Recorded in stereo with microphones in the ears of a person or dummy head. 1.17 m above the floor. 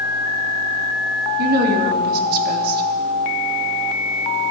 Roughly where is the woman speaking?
Right.